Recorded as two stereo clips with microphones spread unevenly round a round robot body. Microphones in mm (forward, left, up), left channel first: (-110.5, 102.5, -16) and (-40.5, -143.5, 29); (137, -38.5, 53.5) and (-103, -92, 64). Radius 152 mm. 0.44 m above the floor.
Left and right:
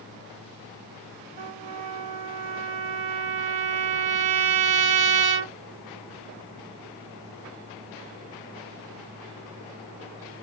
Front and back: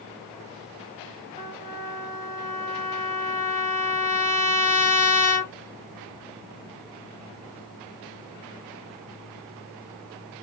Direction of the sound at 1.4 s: 65° right.